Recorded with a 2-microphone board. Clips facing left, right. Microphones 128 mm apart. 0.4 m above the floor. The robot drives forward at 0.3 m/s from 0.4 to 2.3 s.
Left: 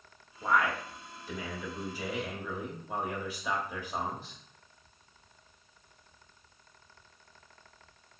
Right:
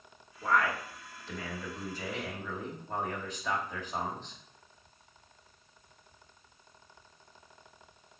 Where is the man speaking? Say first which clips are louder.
Even; 15° left (ahead or behind), 0.8 m; by 4.3 s 10° left (ahead or behind), 1.1 m.